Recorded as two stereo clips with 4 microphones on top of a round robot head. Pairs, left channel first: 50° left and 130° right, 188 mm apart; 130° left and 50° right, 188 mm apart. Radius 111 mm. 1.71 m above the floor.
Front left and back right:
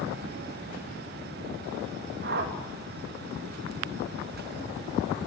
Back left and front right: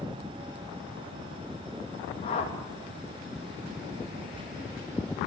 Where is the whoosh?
170° right, 3.5 m.